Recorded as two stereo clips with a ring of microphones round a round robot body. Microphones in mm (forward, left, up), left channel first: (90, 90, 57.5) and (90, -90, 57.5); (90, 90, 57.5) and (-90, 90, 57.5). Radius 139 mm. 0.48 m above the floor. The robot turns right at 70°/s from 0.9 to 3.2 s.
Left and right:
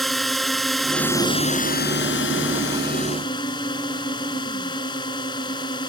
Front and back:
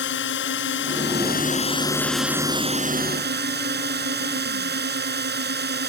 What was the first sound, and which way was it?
A drone, straight ahead.